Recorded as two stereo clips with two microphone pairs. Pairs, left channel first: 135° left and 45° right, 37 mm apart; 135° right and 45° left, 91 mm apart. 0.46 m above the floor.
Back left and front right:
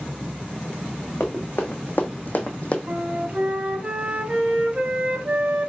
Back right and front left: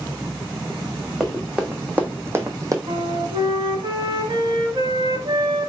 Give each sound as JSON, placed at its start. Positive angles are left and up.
{"t": 1.2, "sound": "running footsteps", "azimuth_deg": 125, "distance_m": 1.4}
{"t": 2.9, "sound": "a flute", "azimuth_deg": 15, "distance_m": 0.6}